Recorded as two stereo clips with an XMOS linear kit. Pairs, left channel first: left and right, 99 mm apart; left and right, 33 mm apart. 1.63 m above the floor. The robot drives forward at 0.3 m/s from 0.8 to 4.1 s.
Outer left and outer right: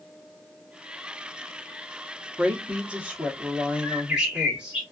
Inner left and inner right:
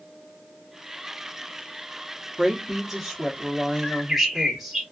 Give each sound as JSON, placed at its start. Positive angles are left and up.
{"t": 2.4, "sound": "a woman speaking", "side_deg": -10, "distance_m": 0.8}
{"t": 3.8, "sound": "a bird", "side_deg": -10, "distance_m": 1.2}